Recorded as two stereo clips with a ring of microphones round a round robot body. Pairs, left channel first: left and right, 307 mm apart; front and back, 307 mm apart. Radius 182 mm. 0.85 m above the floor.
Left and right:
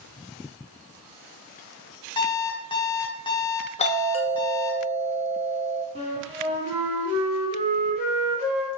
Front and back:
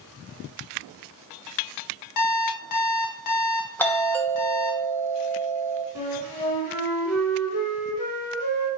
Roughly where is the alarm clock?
Ahead.